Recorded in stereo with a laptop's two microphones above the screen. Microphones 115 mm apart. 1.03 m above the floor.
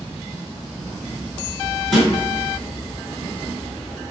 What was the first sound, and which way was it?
A snare drum, 5° left (ahead or behind).